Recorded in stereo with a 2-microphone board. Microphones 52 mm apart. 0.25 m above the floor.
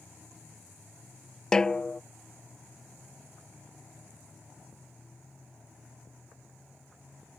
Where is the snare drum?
15° left (ahead or behind).